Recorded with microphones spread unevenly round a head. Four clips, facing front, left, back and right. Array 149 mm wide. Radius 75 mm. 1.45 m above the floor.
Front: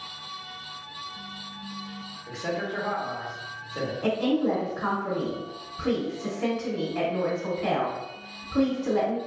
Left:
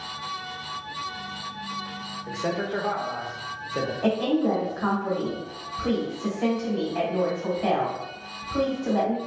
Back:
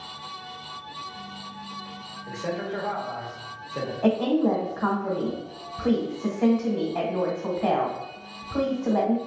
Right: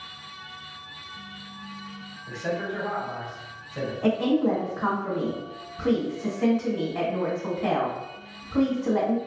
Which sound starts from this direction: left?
A man speaking, at 2.3 s.